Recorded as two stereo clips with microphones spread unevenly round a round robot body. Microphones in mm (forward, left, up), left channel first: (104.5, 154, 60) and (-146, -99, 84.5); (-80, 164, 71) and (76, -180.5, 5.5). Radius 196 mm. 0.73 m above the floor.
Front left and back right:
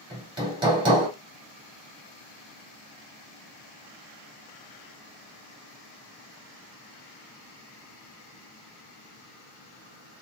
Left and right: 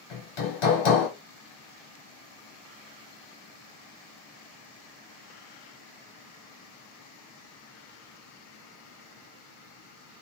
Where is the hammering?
145° left, 1.8 m.